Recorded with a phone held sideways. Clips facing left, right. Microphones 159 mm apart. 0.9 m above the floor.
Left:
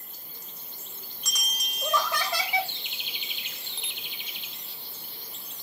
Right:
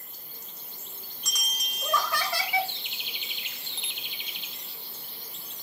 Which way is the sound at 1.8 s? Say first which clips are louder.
Left 1 dB; 20° left (ahead or behind).